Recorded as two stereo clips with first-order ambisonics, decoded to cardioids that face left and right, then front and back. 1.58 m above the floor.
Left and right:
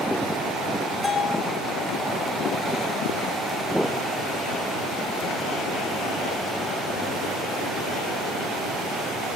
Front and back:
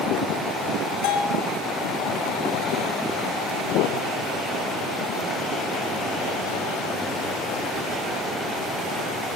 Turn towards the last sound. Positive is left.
turn(degrees=10)